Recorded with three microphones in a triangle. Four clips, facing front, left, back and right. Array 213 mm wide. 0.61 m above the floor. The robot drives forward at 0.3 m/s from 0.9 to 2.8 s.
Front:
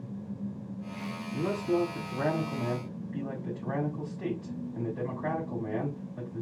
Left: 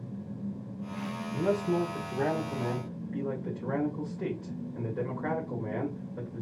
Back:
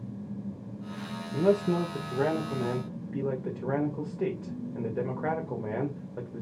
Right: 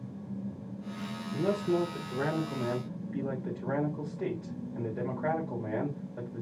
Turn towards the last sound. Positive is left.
turn(degrees=-175)